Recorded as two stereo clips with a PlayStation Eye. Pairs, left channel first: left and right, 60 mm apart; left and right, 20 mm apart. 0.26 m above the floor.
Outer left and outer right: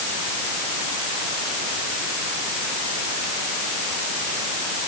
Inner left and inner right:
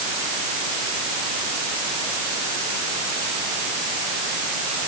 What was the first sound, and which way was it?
Only background noise.